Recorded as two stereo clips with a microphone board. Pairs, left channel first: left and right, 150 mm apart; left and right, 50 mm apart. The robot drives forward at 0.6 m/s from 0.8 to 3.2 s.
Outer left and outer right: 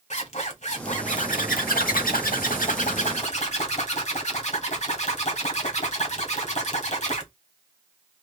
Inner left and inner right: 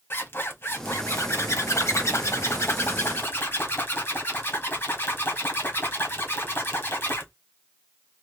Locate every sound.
0.1 s a zipper: 50° left (ahead or behind), 1.2 m